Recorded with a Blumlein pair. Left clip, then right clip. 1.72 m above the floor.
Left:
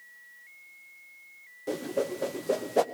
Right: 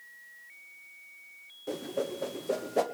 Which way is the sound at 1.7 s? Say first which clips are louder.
Left 3 dB; 10° left.